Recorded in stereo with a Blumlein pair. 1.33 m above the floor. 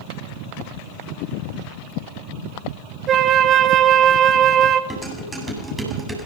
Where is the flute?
25° right, 1.5 m.